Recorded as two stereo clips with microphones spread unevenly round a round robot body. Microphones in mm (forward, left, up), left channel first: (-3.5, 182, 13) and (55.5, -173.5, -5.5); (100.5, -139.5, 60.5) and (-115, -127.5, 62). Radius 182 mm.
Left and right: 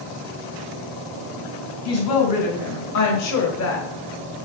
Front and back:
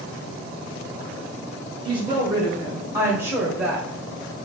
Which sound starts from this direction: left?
A woman speaking, at 1.9 s.